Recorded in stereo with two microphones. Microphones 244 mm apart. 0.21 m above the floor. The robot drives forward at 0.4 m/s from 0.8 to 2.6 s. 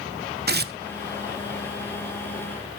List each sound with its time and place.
0.5 s tearing paper: 40° right (ahead or behind), 0.6 m